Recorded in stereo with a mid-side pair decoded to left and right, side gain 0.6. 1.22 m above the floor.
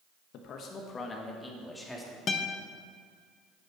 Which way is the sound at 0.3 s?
60° left.